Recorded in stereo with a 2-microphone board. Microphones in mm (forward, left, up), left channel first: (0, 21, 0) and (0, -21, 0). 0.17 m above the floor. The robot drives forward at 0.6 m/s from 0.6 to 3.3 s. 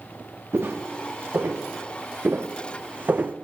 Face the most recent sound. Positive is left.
turn(degrees=-40)  # may be behind; listen again after turning